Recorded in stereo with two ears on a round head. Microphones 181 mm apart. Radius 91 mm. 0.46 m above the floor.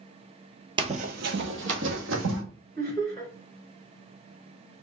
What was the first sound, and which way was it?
Running footsteps, 25° right (ahead or behind).